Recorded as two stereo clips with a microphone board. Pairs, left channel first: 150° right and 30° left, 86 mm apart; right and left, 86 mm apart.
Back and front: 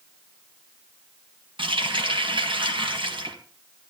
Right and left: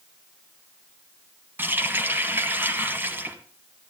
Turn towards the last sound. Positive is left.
turn(degrees=25)